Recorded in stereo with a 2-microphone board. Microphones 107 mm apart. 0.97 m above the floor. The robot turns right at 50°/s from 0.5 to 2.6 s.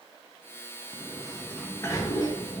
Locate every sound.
0.9 s a sliding door: 15° right, 1.1 m; by 2.6 s 70° left, 1.1 m